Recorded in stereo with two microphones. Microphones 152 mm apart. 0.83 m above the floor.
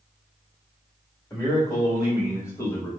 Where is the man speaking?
25° left (ahead or behind), 1.8 m; by 2.9 s 15° left (ahead or behind), 1.1 m.